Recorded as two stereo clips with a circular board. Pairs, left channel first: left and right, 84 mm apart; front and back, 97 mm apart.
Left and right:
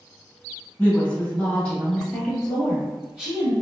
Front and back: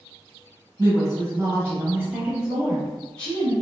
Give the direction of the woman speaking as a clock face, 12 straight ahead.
7 o'clock.